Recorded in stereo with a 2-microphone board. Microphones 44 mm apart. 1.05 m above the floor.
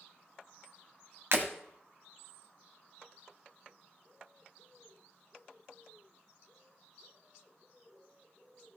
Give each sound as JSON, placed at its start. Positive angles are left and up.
{"t": 1.3, "sound": "breaking glass", "side_deg": -60, "distance_m": 1.7}